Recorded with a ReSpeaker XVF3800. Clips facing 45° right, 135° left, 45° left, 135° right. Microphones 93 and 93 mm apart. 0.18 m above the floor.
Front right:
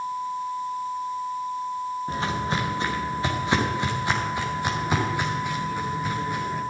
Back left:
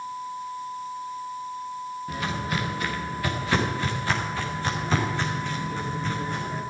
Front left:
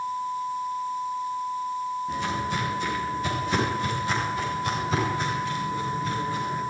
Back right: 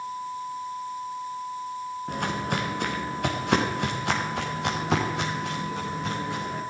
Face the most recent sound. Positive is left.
turn(degrees=-125)